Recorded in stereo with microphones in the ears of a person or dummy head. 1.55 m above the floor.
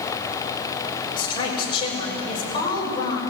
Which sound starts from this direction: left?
A woman speaking, at 1.2 s.